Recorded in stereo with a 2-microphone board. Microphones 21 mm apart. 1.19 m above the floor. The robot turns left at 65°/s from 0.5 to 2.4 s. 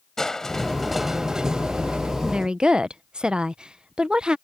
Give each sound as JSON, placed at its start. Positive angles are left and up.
{"t": 0.2, "sound": "crushing", "azimuth_deg": 25}
{"t": 2.2, "sound": "a woman speaking", "side_deg": -45}